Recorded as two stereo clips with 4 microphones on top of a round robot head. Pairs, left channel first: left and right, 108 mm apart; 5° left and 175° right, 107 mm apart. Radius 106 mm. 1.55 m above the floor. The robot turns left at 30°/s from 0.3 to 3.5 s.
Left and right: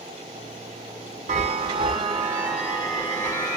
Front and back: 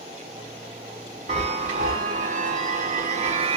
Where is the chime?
135° right, 0.5 m; by 3.6 s 160° left, 0.5 m.